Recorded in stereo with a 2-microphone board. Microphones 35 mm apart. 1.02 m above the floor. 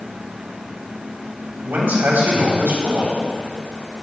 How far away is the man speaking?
About 3.5 m.